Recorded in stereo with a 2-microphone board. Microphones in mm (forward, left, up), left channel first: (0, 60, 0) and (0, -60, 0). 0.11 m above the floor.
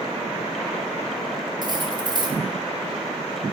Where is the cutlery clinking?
35° right (ahead or behind), 1.2 m.